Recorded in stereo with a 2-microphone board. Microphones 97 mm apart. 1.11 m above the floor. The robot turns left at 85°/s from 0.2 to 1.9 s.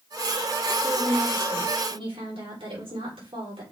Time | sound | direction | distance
0.8 | a woman speaking | 20° right | 4 m